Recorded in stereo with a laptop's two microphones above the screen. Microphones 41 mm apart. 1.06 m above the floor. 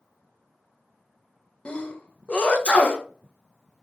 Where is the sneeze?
25° left (ahead or behind), 0.6 m.